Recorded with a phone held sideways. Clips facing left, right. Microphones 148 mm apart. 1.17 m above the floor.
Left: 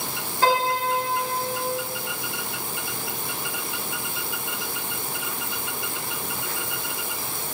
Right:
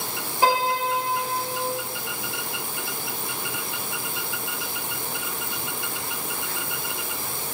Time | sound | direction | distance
0.4 | a piano | 20° right (ahead or behind) | 1.6 m